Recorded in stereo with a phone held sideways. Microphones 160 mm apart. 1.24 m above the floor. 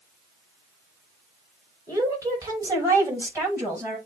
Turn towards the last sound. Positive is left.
turn(degrees=-15)  # may be behind; listen again after turning